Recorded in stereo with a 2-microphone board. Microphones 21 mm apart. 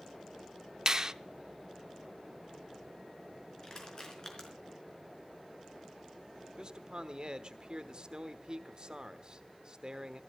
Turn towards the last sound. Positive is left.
turn(degrees=-45)  # may be behind; listen again after turning